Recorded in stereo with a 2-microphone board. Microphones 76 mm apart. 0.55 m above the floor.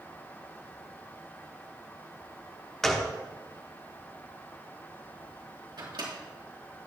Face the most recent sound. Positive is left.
turn(degrees=-75)  # may be behind; listen again after turning